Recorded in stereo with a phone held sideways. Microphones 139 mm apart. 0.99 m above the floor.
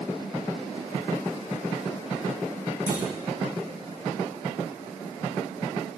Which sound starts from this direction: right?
A clunk, at 2.9 s.